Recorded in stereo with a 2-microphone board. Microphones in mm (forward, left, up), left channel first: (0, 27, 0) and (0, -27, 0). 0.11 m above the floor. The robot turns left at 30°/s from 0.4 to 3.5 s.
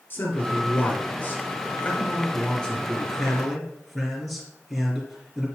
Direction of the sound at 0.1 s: 90° left.